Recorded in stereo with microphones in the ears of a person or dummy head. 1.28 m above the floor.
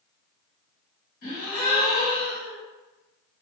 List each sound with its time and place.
1.2 s a gasp: 45° left (ahead or behind), 1.7 m